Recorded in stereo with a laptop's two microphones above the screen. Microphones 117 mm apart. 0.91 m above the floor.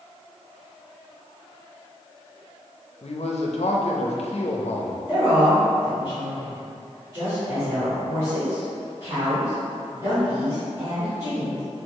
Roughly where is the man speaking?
Left.